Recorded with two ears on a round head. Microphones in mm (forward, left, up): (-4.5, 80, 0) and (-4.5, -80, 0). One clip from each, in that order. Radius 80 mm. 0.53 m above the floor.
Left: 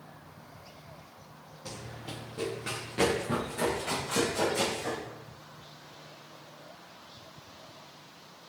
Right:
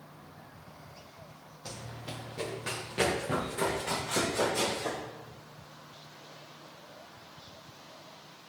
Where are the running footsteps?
10° right (ahead or behind), 3.5 m; by 5.0 s 5° right (ahead or behind), 8 m.